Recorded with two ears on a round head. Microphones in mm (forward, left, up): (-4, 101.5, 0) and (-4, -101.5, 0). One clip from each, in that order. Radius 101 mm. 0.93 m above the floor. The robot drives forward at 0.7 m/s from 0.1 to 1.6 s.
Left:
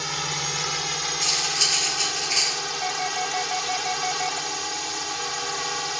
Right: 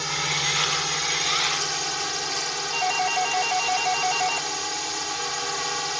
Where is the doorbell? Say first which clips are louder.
Right 3 dB; 55° right (ahead or behind).